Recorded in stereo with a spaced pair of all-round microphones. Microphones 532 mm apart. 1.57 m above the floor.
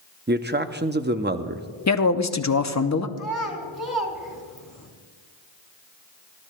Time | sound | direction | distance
0.3 | a man speaking | 20° right (ahead or behind) | 0.6 m
1.9 | a man speaking | 30° left (ahead or behind) | 0.7 m
3.2 | a child speaking | 35° left (ahead or behind) | 2.5 m